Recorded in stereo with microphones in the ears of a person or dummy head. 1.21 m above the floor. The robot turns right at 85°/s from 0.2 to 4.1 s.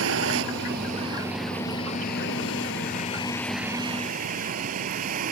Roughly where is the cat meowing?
I don't hear a cat meowing.